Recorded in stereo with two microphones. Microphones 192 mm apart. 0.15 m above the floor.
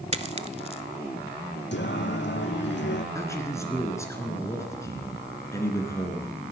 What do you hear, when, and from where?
0.1 s a dropped coin: 35° right (ahead or behind), 0.7 m
1.7 s singing: 70° left (ahead or behind), 1.4 m
3.1 s a man speaking: 15° left (ahead or behind), 2.5 m